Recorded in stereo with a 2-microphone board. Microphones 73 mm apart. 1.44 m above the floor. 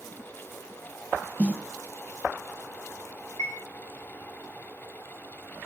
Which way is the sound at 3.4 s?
70° left (ahead or behind).